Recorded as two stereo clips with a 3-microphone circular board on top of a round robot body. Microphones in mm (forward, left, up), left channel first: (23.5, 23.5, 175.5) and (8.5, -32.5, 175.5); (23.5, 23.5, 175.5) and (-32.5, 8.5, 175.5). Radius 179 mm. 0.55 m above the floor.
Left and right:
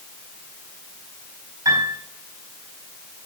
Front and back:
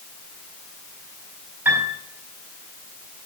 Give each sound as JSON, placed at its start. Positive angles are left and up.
{"t": 1.6, "sound": "a piano", "azimuth_deg": -105, "distance_m": 4.5}